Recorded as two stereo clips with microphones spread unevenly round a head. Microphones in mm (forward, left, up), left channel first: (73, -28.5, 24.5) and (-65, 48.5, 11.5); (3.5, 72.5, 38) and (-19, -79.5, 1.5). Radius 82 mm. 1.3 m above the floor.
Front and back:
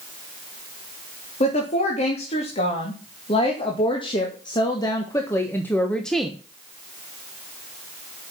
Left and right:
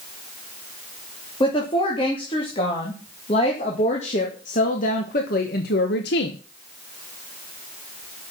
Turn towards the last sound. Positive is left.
turn(degrees=65)